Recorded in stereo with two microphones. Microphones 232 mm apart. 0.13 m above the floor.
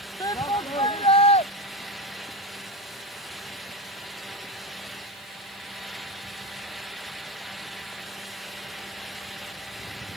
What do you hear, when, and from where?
0.2 s a shout: 15° left (ahead or behind); by 1.5 s 25° left (ahead or behind)